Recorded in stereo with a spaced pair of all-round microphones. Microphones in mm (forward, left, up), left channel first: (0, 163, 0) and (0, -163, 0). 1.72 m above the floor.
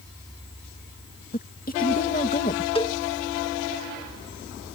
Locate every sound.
1.3 s a woman speaking: 25° left (ahead or behind)
2.8 s a cowbell: 15° left (ahead or behind)